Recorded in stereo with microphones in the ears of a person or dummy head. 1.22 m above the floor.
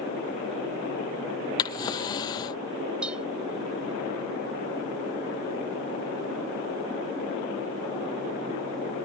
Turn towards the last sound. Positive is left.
turn(degrees=0)  # may be behind; listen again after turning